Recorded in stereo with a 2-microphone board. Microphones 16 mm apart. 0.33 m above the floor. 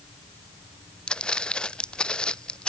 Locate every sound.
1.1 s footsteps: 75° left (ahead or behind)